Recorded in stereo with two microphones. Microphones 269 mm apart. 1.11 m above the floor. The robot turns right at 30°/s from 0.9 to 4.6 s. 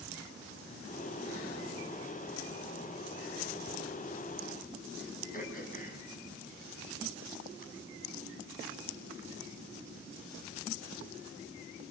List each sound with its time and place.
5.3 s throat clearing: 30° left (ahead or behind), 6.5 m